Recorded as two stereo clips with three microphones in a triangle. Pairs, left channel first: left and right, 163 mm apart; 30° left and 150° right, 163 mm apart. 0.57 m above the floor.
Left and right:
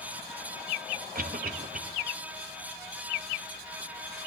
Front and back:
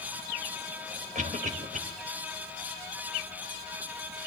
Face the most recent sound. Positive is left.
turn(degrees=-115)